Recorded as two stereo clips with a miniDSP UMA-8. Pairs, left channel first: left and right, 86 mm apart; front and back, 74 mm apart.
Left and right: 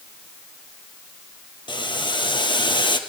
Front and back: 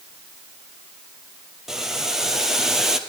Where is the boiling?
95° left, 1.4 m.